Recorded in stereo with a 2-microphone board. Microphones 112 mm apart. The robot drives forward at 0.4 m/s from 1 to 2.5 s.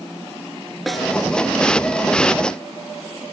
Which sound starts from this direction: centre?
A snare drum, at 0.9 s.